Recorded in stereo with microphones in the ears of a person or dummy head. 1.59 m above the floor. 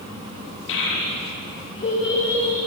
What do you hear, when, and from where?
0.7 s a child speaking: 65° left (ahead or behind), 1.4 m; by 2.6 s 20° left (ahead or behind), 2 m